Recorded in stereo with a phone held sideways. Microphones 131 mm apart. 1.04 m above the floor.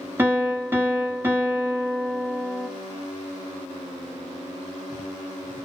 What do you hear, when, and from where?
0.2 s a piano: 15° right (ahead or behind), 1.1 m